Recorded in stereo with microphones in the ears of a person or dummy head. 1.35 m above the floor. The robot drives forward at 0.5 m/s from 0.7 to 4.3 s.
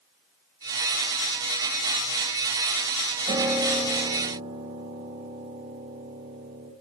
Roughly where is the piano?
Centre.